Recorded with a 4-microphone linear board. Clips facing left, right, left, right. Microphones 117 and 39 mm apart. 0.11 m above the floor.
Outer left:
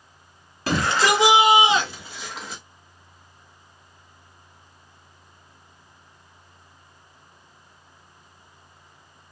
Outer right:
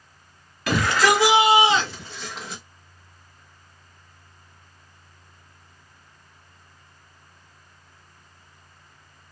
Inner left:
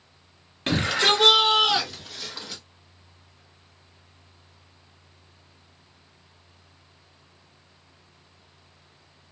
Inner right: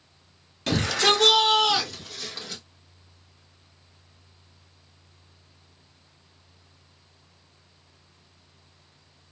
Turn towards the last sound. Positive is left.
turn(degrees=0)  # may be behind; listen again after turning